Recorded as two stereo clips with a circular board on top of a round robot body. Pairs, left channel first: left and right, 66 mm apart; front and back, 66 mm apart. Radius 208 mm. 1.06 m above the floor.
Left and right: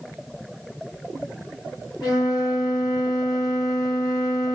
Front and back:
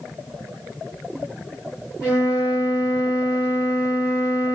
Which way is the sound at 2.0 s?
115° left.